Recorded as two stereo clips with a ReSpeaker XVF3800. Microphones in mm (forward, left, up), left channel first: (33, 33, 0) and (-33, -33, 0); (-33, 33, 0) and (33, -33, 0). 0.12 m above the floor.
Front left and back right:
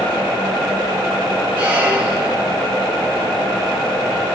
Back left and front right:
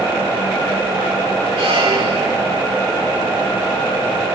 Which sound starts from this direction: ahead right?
A squeak, at 1.6 s.